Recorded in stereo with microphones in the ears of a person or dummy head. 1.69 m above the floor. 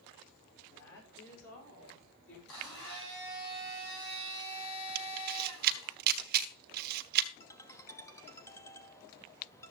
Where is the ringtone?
15° left (ahead or behind), 1.1 m.